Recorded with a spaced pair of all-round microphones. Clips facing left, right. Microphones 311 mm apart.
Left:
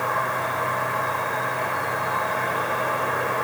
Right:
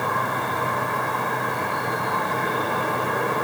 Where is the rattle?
I don't hear a rattle.